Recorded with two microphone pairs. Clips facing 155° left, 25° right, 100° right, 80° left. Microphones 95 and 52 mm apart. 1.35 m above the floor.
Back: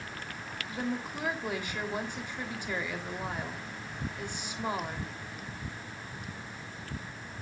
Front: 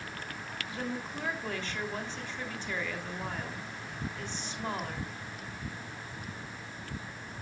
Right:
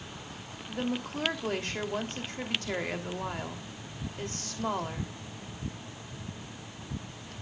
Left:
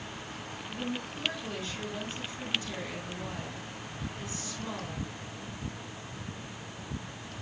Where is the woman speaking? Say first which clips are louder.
Back 3 dB, right 4 dB; 125° right, 3 m.